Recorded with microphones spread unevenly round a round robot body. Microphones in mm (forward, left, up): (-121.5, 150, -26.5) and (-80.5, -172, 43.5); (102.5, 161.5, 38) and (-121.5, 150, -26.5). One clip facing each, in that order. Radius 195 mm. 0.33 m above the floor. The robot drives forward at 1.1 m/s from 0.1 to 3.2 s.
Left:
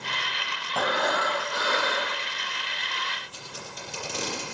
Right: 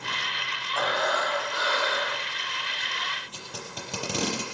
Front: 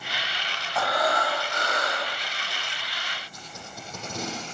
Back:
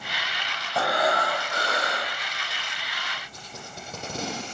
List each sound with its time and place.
0.8 s breathing: 120° left, 9.5 m; by 2.2 s 130° left, 10.5 m
3.3 s tape being pulled: 100° right, 6.5 m